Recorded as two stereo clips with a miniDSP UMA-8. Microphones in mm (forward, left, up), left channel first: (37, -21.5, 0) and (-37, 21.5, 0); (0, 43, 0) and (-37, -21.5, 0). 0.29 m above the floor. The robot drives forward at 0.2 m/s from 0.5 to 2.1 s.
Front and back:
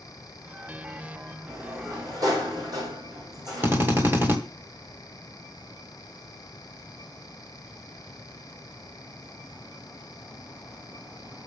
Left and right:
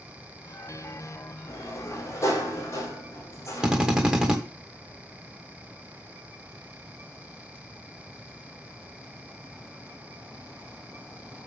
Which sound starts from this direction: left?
A sliding door, at 1.5 s.